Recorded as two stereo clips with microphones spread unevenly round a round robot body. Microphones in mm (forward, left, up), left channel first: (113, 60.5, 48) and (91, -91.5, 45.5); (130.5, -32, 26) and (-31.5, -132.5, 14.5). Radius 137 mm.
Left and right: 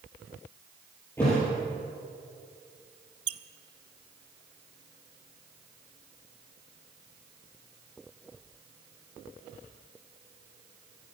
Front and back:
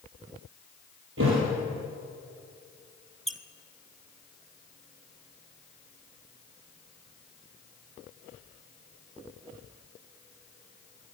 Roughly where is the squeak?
Ahead right.